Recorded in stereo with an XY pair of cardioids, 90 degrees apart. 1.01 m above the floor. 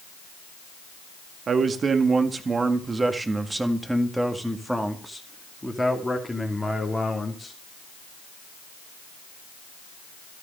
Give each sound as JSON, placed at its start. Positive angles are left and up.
{"t": 1.5, "sound": "a man speaking", "azimuth_deg": -55, "distance_m": 2.0}